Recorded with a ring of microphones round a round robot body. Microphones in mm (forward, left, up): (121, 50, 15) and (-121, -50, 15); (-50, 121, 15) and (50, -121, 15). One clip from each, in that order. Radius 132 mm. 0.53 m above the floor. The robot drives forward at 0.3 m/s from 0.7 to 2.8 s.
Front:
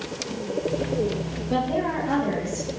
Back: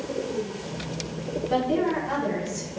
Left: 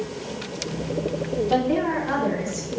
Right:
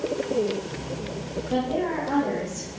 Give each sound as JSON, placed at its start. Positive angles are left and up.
{"t": 1.5, "sound": "a woman speaking", "azimuth_deg": 130, "distance_m": 1.8}